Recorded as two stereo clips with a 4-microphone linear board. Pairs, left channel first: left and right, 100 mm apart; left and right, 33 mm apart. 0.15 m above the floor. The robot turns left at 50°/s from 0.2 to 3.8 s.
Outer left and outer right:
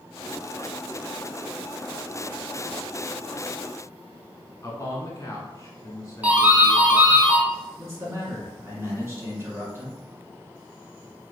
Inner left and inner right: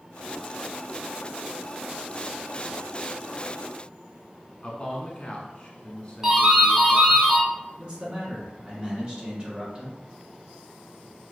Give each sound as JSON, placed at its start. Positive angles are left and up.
{"t": 4.6, "sound": "a man speaking", "side_deg": 35, "distance_m": 1.2}
{"t": 6.2, "sound": "a doorbell", "side_deg": -15, "distance_m": 1.4}
{"t": 7.8, "sound": "a man speaking", "side_deg": -30, "distance_m": 2.0}